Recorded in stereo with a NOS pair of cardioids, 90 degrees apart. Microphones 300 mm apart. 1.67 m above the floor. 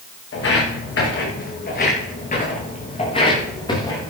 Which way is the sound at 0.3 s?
50° left.